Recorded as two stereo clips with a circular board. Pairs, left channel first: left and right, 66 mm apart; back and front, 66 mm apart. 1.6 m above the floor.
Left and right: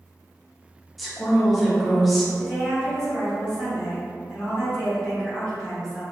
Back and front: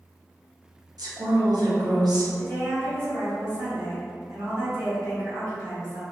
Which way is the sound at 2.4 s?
10° left.